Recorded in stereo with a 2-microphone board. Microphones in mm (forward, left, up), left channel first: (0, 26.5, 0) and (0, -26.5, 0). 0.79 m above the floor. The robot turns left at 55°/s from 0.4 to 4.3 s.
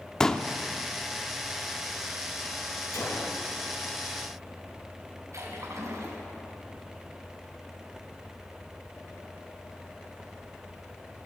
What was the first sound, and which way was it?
A pop, 10° left (ahead or behind).